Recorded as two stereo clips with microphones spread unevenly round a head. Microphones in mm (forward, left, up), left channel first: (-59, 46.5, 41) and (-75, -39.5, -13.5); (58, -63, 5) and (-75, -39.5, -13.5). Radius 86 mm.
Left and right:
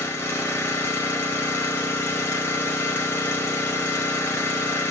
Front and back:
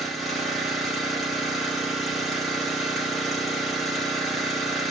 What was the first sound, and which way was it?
An engine running, 75° left.